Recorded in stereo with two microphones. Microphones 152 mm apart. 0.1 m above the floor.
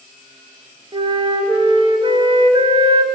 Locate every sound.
0.9 s a flute: 35° right (ahead or behind), 1.0 m